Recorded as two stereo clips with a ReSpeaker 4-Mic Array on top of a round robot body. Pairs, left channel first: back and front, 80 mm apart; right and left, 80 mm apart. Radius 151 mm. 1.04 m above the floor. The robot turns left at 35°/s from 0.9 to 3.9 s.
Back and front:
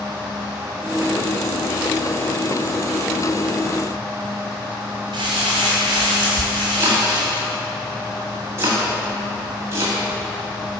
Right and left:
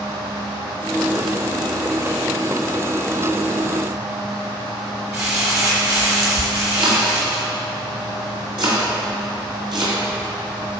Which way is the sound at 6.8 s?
60° left.